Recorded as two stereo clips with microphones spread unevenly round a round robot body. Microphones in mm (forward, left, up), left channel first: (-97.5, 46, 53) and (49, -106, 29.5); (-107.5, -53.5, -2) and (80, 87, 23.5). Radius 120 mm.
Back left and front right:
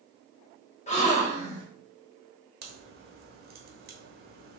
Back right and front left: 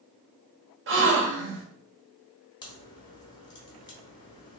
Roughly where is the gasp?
Left.